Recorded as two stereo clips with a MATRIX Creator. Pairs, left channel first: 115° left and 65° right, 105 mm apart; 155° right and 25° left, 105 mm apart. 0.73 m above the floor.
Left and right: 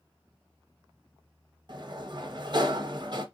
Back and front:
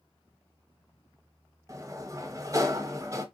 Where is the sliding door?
30° right, 0.8 m.